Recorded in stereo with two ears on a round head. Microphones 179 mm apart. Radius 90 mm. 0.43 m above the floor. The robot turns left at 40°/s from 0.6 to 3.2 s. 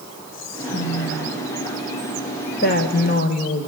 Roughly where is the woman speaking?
Left.